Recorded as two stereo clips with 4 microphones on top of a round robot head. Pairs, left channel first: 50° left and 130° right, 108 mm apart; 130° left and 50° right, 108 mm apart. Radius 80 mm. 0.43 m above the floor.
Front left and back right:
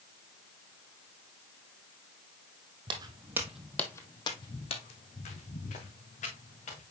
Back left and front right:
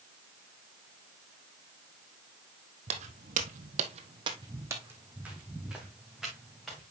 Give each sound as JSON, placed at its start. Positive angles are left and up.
{"t": 2.9, "sound": "footsteps", "azimuth_deg": -80, "distance_m": 1.5}